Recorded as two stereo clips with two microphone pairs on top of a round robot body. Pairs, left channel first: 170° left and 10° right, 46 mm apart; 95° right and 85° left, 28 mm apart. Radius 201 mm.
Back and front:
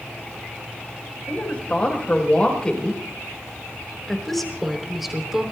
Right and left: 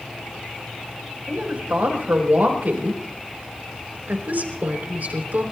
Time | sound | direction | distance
1.3 | a woman speaking | 110° left | 5 m